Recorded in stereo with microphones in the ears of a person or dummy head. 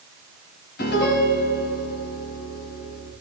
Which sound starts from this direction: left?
A piano, at 0.8 s.